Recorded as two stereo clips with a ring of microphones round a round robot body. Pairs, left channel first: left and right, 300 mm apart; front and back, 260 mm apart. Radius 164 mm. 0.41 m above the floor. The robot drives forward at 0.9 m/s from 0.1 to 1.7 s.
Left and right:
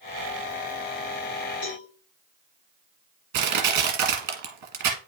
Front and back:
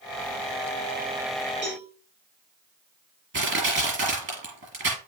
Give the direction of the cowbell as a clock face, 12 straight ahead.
8 o'clock.